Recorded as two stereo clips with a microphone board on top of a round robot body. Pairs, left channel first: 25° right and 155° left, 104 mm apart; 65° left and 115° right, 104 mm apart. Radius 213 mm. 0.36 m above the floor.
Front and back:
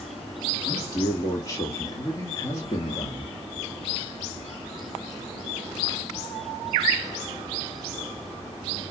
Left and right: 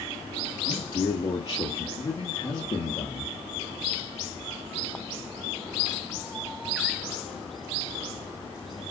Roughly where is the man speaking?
Ahead.